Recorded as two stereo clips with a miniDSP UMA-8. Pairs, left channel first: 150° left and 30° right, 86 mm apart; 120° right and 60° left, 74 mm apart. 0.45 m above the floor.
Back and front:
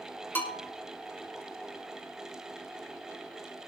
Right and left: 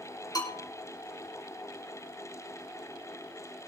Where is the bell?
150° right, 4.5 m.